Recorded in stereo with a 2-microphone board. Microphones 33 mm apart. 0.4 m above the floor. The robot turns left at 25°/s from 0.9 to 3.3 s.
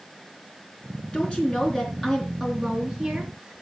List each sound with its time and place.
1.1 s a woman speaking: 40° left, 4 m; by 3.6 s 15° right, 4 m